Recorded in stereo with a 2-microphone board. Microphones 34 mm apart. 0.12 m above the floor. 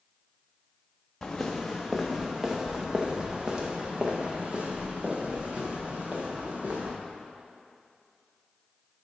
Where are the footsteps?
10° left (ahead or behind), 1.5 m; by 6.9 s 40° right (ahead or behind), 3.5 m.